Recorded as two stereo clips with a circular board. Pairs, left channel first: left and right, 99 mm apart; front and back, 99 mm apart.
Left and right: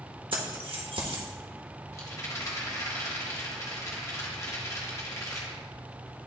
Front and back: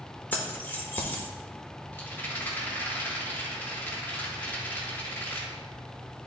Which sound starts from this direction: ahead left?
A rattle, at 1.9 s.